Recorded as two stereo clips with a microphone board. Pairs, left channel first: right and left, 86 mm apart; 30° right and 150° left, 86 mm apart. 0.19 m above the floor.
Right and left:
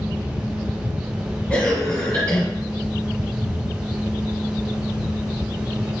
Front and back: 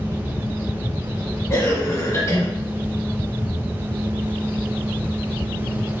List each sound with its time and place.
1.5 s a cough: 40° right, 1.1 m